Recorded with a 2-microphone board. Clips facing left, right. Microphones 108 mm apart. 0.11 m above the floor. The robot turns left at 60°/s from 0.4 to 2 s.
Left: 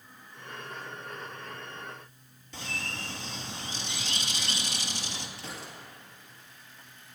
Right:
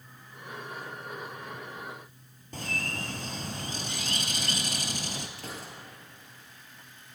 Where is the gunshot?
50° right (ahead or behind), 3 m.